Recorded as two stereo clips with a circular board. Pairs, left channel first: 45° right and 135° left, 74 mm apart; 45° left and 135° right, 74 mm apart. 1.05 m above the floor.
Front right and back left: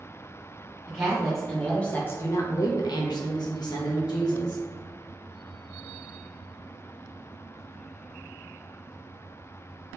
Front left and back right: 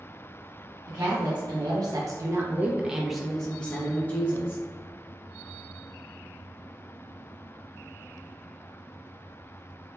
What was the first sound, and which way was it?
A woman speaking, 145° right.